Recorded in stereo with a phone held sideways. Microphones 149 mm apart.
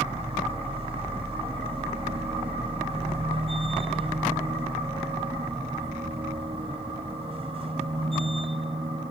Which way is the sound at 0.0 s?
40° right (ahead or behind).